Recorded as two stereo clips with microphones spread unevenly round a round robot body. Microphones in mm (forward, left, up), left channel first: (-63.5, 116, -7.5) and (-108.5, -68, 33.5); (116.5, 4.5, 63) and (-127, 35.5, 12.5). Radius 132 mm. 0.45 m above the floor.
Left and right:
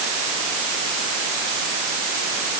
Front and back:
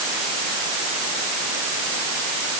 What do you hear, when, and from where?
Only background noise.